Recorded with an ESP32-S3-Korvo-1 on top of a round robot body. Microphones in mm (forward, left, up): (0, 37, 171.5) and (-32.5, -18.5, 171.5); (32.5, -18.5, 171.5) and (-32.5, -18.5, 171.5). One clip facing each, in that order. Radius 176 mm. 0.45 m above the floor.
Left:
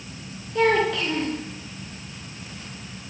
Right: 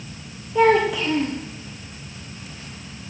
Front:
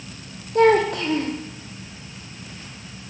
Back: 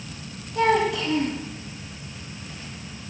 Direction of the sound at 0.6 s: 40° right.